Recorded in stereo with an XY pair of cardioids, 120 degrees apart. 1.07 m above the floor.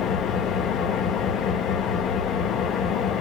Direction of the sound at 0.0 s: 70° left.